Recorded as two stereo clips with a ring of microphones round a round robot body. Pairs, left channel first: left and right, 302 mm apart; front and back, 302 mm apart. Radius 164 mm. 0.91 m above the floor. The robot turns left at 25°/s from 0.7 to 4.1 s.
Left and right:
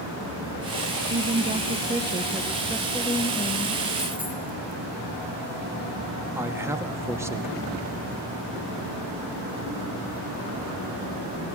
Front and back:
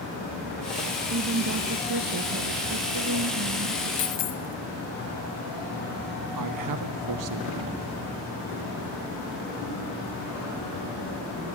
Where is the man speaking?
170° right, 1.3 m.